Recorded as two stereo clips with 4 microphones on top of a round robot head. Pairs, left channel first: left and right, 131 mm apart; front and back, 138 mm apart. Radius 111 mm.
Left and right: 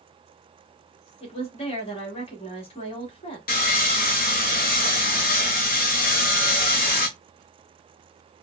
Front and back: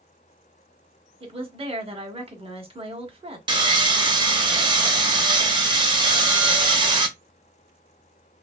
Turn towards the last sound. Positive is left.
turn(degrees=125)